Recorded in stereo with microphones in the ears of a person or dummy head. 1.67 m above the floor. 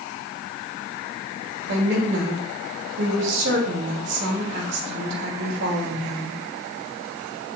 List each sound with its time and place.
1.7 s a woman speaking: 70° right (ahead or behind), 5.5 m